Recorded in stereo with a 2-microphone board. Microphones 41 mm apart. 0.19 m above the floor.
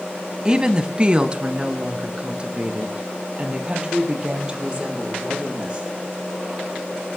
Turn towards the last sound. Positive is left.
turn(degrees=-25)  # may be behind; listen again after turning